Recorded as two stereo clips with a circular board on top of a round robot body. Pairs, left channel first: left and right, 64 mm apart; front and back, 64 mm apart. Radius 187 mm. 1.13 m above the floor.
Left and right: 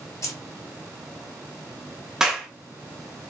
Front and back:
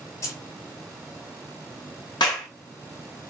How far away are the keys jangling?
About 0.8 m.